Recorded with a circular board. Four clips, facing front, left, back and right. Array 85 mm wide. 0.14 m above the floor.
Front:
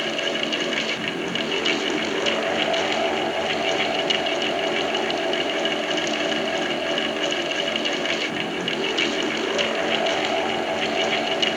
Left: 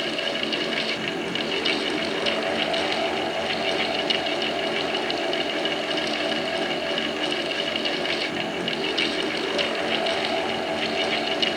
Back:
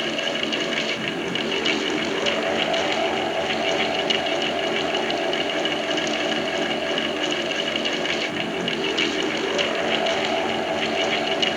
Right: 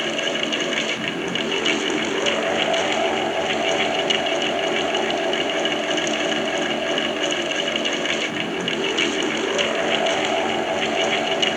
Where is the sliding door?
I don't hear a sliding door.